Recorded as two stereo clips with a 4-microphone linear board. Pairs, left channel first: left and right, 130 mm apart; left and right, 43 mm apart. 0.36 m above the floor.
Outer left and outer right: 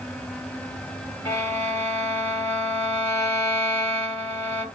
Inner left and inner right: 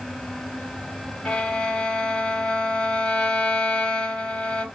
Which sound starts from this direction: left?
A violin, at 1.2 s.